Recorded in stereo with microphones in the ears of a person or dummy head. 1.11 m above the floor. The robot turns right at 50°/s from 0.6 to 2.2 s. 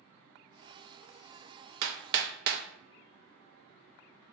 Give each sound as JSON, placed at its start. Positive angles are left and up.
{"t": 1.8, "sound": "hammering", "side_deg": -75, "distance_m": 0.5}